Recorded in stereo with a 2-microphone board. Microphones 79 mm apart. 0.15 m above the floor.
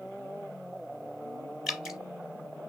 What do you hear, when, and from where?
1.7 s dripping: 5° right (ahead or behind), 1.0 m